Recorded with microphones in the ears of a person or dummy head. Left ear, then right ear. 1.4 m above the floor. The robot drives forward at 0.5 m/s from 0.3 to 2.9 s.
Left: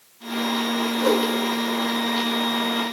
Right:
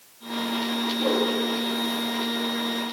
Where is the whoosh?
55° left (ahead or behind), 2.5 m; by 1.3 s 50° left (ahead or behind), 2.5 m.